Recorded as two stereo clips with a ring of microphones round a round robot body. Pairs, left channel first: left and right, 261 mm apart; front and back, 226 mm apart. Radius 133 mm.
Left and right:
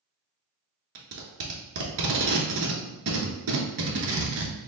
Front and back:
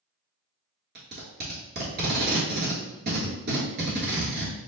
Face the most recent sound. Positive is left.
turn(degrees=-125)